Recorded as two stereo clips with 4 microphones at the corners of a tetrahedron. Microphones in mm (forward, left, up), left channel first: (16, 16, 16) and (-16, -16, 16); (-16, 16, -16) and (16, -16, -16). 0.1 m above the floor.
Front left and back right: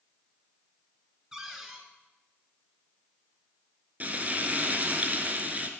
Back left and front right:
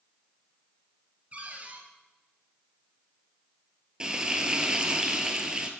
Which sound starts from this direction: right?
Frying, at 4.0 s.